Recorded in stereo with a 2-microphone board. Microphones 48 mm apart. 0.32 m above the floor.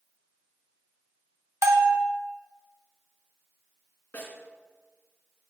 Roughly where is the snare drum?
Left.